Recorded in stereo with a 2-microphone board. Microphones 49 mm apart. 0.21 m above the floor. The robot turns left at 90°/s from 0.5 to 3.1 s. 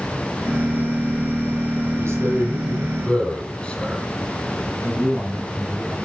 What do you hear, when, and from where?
2.0 s a man speaking: 100° right, 9 m; by 4.1 s 160° left, 9 m
4.8 s a man speaking: 20° right (ahead or behind), 7.5 m